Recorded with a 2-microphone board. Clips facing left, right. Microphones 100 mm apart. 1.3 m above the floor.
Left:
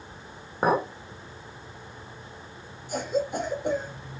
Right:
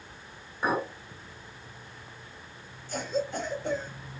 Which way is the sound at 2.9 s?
15° left (ahead or behind).